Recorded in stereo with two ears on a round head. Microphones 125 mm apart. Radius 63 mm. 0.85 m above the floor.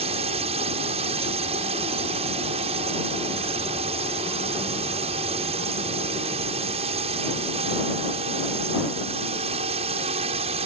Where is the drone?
45° right (ahead or behind).